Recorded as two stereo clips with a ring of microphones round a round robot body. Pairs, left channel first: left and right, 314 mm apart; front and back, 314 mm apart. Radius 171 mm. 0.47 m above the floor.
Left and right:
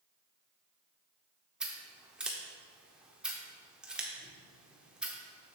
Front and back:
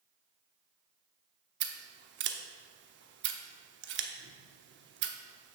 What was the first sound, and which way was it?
Scissors, 175° right.